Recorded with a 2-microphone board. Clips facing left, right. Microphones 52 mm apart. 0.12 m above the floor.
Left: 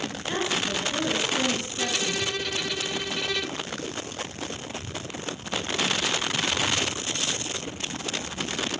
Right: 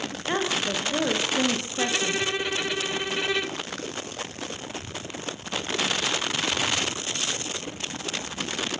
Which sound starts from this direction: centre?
A violin, at 1.8 s.